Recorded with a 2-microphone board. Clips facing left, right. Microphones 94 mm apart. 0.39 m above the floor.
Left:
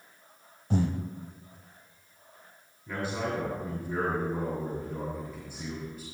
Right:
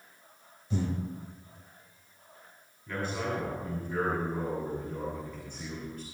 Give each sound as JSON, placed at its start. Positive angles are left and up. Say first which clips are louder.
{"t": 0.7, "sound": "breathing", "louder": "left 4 dB", "side_deg": 65, "distance_m": 1.2}
{"t": 2.9, "sound": "a man speaking", "louder": "left 1 dB", "side_deg": 15, "distance_m": 6.5}